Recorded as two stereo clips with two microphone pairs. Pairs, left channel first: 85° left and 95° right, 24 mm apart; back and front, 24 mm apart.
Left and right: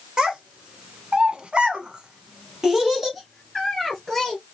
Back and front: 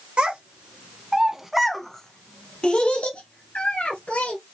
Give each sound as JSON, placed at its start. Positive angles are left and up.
{"t": 0.2, "sound": "a child speaking", "azimuth_deg": -40, "distance_m": 1.8}